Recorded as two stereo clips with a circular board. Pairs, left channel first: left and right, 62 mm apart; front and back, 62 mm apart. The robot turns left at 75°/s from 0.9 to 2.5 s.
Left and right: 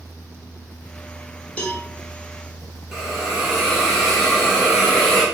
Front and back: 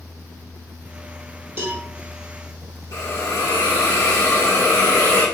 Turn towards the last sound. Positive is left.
turn(degrees=-5)